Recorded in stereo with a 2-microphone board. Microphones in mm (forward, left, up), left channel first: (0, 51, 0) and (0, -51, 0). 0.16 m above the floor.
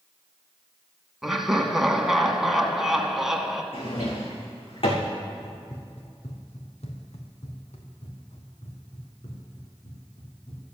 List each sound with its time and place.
1.2 s laughter: 5° right (ahead or behind), 1.4 m
3.7 s a drawer: 65° left (ahead or behind), 2.5 m
5.4 s running footsteps: 75° left (ahead or behind), 1.5 m; by 10.6 s 80° left, 4.5 m